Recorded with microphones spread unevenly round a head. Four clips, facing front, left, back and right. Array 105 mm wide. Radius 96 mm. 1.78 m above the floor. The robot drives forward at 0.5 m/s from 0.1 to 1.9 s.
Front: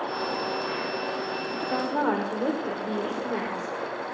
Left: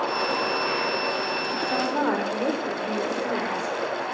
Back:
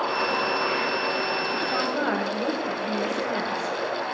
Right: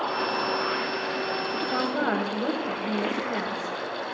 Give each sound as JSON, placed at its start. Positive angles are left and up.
{"t": 1.7, "sound": "a woman speaking", "azimuth_deg": 10, "distance_m": 5.5}